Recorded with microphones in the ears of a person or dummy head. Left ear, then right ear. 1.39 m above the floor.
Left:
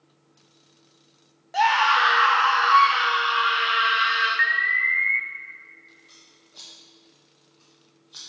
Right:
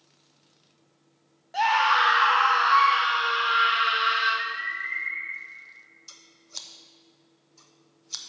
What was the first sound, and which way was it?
A scream, 15° left (ahead or behind).